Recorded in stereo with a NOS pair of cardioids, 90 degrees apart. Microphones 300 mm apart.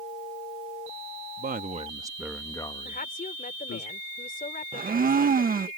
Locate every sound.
1.4 s a man speaking: 35° right; by 3.9 s 55° left
2.9 s a woman speaking: 30° left
4.7 s a blender: 30° right